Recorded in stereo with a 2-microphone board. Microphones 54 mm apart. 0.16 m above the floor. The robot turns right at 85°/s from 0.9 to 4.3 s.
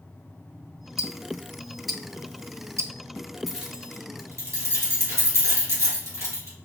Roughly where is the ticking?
Left.